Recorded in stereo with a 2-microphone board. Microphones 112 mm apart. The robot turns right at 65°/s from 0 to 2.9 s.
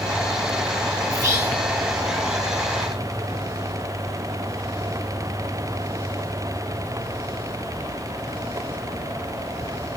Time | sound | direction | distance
1.1 | whispering | 35° right | 3 m